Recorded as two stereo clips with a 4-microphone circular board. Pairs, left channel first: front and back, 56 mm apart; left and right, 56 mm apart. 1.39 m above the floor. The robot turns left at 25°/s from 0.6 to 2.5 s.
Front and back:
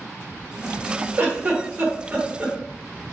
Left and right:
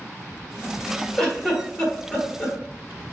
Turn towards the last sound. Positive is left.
turn(degrees=125)